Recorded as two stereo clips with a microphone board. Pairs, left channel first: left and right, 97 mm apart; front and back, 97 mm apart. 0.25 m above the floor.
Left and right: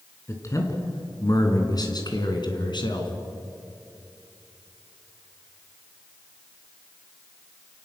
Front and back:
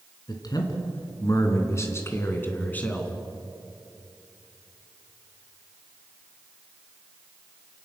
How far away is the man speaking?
About 3.5 m.